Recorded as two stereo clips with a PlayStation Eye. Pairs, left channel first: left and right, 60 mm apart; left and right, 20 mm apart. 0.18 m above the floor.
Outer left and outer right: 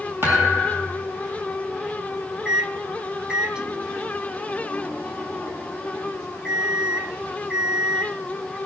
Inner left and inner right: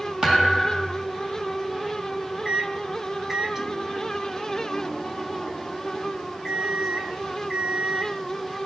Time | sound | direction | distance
0.2 | a thud | 35° right (ahead or behind) | 4.5 m
2.5 | a microwave | 15° right (ahead or behind) | 1.2 m